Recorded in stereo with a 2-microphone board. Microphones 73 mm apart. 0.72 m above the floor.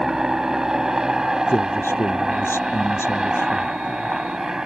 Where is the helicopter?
10° right (ahead or behind).